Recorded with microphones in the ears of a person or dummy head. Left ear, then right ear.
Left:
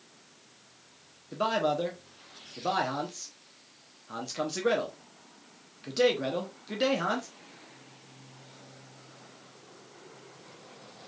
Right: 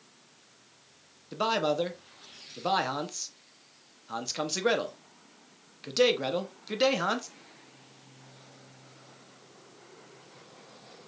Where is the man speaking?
15° right (ahead or behind), 0.7 m.